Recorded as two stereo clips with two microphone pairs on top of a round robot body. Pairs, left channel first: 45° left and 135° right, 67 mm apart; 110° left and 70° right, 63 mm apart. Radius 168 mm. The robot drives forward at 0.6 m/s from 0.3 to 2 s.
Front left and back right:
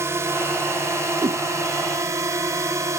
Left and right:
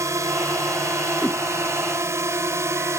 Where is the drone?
100° right; by 3.0 s 105° right.